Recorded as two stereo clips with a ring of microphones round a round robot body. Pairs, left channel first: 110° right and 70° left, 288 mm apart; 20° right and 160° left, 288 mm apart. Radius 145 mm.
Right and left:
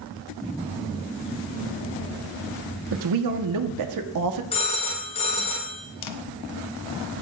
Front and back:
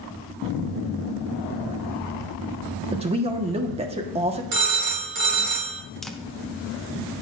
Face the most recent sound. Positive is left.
turn(degrees=-110)